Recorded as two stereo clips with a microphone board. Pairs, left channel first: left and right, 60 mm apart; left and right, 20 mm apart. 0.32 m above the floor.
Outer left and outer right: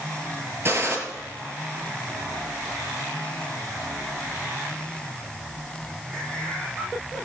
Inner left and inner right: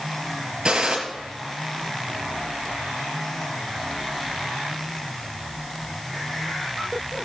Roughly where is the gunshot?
Right.